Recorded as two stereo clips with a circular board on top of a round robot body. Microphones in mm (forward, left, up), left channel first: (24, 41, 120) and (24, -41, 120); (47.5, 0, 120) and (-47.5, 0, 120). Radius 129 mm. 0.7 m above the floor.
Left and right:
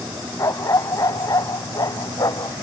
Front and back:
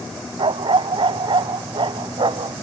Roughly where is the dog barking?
Behind left.